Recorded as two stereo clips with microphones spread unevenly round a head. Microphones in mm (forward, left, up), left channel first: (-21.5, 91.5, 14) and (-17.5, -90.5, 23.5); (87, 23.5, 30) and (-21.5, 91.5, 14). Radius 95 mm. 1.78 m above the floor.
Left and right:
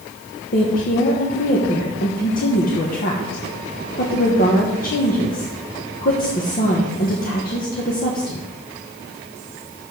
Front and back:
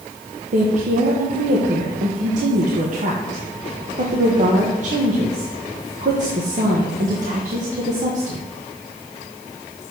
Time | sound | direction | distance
0.5 | a woman speaking | 130° left | 1.3 m